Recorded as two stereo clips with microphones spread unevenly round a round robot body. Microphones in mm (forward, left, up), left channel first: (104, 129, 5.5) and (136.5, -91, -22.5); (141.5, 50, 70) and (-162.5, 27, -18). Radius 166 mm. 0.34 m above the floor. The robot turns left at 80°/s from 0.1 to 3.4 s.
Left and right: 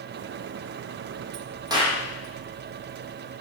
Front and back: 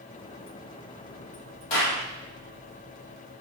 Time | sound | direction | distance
1.7 | a clap | 10° right | 9 m